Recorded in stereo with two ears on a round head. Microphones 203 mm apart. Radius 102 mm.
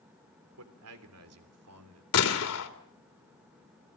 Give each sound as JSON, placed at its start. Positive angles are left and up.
{"t": 0.6, "sound": "a man speaking", "side_deg": -70, "distance_m": 3.5}
{"t": 2.1, "sound": "a gunshot", "side_deg": 75, "distance_m": 3.0}